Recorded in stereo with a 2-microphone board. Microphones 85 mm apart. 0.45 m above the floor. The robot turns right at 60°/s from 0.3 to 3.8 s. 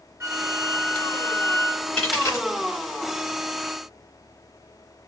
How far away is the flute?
About 1.2 m.